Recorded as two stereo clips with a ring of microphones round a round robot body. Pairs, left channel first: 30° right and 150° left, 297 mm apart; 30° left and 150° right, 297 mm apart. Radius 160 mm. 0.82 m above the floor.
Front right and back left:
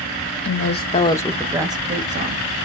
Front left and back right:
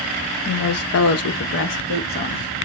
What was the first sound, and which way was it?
A woman speaking, straight ahead.